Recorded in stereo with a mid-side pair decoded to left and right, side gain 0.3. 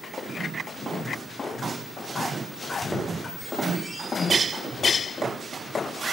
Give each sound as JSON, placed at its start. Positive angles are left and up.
{"t": 2.6, "sound": "a squeak", "azimuth_deg": -25, "distance_m": 4.0}